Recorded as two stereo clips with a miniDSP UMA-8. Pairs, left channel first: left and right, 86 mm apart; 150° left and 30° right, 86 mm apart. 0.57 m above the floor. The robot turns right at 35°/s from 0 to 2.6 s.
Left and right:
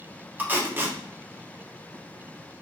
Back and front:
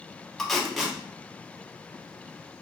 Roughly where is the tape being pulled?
Behind right.